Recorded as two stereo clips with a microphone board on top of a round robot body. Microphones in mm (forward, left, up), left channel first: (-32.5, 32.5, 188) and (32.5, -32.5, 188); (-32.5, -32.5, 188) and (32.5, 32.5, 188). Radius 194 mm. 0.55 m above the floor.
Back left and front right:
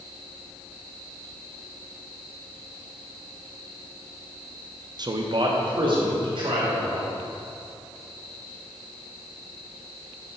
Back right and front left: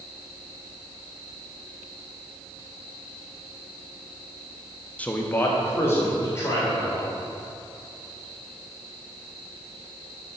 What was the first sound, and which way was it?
A man speaking, 65° right.